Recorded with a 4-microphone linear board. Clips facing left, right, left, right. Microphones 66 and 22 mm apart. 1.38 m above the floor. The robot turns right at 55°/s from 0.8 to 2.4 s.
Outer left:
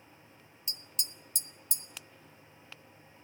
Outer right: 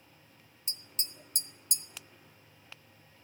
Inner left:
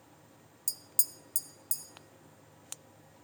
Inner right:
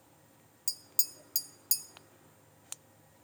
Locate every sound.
0.7 s tapping: 25° right (ahead or behind), 0.6 m; by 1.8 s 65° right (ahead or behind), 0.6 m